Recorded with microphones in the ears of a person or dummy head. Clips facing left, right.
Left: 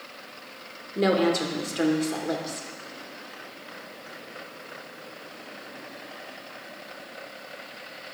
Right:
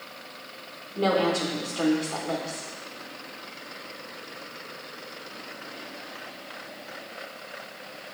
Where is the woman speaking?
30° left (ahead or behind), 1.2 m.